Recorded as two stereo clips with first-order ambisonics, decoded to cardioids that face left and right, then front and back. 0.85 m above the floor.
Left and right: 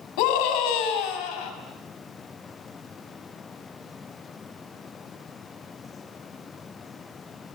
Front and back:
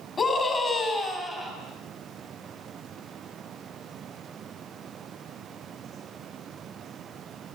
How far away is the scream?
About 5.5 m.